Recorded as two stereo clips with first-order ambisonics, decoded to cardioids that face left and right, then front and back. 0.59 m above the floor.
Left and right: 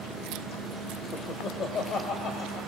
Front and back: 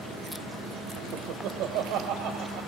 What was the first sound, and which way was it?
Laughter, 145° left.